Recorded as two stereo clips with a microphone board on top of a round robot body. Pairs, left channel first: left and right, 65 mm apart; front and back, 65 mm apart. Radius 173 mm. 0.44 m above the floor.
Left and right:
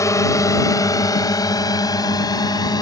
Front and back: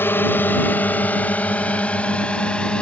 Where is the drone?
55° left; by 2.8 s 75° left.